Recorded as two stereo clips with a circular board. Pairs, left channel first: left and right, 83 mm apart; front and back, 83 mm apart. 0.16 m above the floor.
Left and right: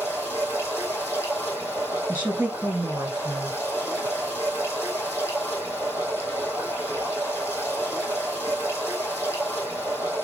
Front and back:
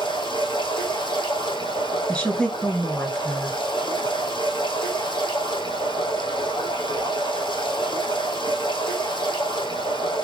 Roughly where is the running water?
Ahead.